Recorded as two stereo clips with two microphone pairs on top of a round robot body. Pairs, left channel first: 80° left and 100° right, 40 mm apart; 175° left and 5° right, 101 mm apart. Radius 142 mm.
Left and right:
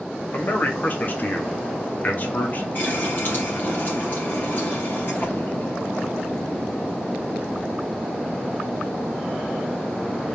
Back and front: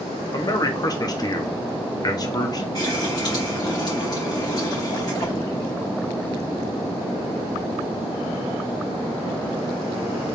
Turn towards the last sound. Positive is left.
turn(degrees=120)